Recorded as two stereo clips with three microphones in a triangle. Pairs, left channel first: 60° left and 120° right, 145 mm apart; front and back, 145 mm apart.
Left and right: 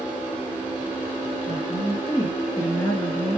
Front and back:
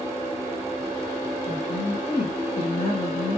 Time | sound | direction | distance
1.5 | a woman speaking | 20° left | 1.9 m